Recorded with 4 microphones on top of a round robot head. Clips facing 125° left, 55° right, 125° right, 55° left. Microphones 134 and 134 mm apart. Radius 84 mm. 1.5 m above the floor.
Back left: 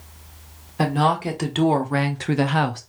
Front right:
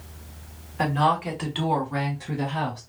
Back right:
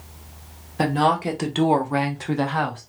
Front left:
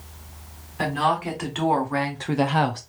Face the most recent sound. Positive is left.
turn(degrees=100)